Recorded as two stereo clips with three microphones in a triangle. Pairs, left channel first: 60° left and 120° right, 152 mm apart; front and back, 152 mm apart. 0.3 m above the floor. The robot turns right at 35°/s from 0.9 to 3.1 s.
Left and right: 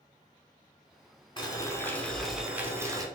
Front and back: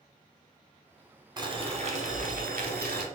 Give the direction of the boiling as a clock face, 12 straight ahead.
8 o'clock.